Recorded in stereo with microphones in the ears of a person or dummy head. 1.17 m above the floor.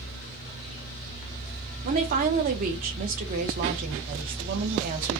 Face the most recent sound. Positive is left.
turn(degrees=-45)  # may be behind; listen again after turning